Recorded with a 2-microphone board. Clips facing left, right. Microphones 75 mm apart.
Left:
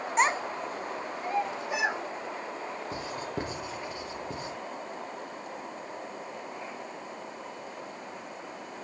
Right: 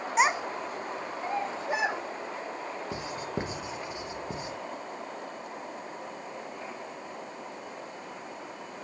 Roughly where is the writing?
Centre.